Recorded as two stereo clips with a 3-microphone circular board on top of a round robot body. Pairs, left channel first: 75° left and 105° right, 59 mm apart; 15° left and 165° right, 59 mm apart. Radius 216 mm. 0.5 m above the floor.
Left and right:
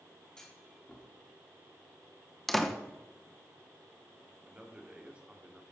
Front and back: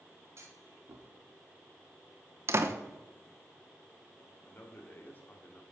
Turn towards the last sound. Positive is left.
turn(degrees=-35)